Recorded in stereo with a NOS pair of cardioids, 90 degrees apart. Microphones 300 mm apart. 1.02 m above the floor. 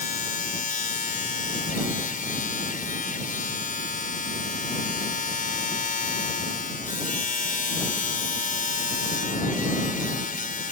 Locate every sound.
0.0 s a machine running: 25° left